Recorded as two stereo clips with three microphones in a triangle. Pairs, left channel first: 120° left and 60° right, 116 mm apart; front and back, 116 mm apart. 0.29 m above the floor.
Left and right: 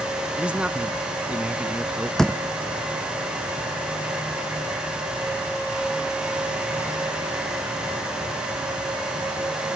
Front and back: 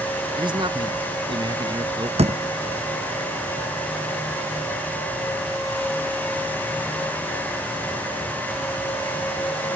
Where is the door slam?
155° right.